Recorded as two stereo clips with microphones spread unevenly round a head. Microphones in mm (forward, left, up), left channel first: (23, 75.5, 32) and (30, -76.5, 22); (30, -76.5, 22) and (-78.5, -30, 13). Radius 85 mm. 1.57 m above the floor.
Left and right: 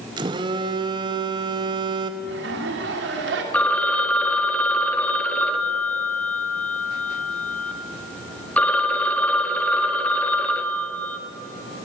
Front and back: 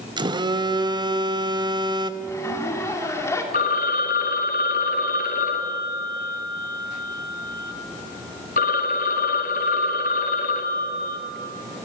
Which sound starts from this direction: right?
A zipper, at 2.2 s.